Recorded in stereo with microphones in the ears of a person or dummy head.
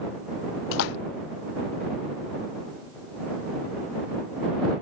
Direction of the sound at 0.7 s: 60° left (ahead or behind).